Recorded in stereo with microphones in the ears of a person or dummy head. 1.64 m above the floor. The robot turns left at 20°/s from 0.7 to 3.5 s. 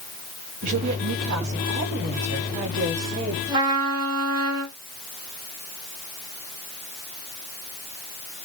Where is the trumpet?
20° right (ahead or behind), 2 m.